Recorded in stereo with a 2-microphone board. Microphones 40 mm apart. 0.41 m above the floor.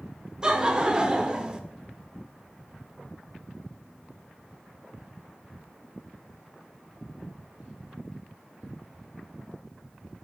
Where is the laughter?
20° right (ahead or behind), 0.7 m.